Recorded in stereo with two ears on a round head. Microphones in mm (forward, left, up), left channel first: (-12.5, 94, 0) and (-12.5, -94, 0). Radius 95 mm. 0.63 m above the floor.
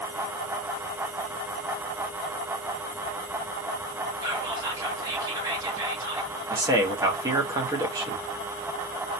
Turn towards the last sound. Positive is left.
turn(degrees=-20)  # may be behind; listen again after turning